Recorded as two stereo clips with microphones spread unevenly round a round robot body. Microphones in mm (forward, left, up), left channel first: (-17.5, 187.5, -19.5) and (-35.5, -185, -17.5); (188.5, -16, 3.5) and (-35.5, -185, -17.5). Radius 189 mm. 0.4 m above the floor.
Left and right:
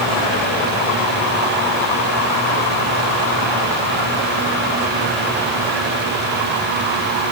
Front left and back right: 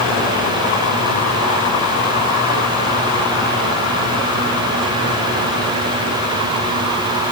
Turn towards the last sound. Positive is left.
No sound to turn to.